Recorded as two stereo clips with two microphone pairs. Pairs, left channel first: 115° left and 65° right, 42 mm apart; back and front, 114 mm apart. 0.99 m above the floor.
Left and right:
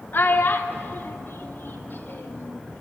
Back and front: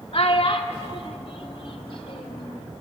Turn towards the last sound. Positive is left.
turn(degrees=140)